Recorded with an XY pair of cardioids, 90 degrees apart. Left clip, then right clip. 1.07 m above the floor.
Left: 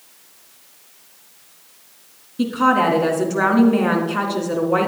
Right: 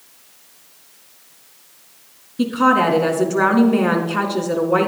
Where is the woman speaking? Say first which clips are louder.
Right 1 dB; 5° right, 2.5 m.